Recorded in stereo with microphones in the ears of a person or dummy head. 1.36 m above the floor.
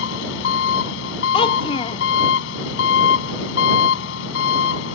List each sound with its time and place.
0.0 s an engine running: 70° left (ahead or behind)
1.3 s a child speaking: 20° left (ahead or behind)